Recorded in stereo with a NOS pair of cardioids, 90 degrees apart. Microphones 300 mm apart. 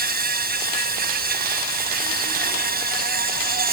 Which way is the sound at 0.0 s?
30° right.